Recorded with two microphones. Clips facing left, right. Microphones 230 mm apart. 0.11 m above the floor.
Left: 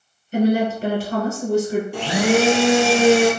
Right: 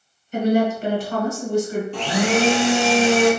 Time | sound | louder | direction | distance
0.3 | a woman speaking | left 1 dB | 30° left (ahead or behind) | 1.9 m
1.9 | a blender | left 2 dB | 10° left (ahead or behind) | 0.8 m